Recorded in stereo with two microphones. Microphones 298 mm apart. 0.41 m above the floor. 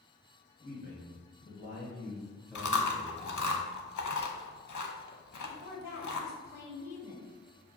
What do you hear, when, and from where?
0.6 s a man speaking: 40° right (ahead or behind), 1.8 m; by 3.5 s 35° left (ahead or behind), 1.1 m
2.5 s chewing: 75° left (ahead or behind), 0.5 m
5.4 s a woman speaking: 10° right (ahead or behind), 1.4 m